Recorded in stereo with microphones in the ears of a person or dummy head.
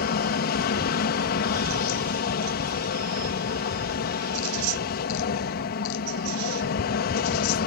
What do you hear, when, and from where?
0.0 s an aircraft: 50° left (ahead or behind)